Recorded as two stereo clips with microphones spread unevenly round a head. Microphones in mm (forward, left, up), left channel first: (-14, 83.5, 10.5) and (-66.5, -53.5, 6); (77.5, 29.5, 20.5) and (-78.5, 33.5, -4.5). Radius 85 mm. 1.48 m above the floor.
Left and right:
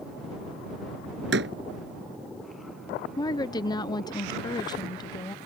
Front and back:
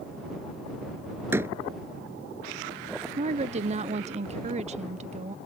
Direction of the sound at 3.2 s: 135° left.